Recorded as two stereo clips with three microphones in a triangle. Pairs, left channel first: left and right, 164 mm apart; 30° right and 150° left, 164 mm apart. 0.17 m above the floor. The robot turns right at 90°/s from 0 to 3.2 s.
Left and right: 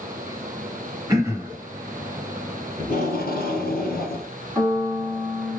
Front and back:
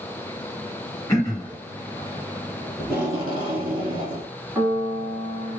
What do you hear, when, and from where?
1.1 s throat clearing: 65° right, 1.0 m; by 1.6 s 20° right, 1.0 m
2.8 s tape being pulled: 50° left, 1.7 m; by 4.3 s 90° left, 1.7 m
4.5 s a piano: 150° right, 1.8 m